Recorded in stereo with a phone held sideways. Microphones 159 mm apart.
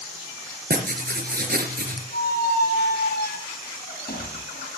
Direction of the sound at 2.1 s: 75° left (ahead or behind).